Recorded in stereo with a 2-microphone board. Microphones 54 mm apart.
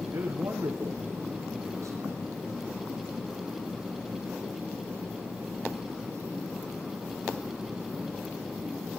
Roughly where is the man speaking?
Right.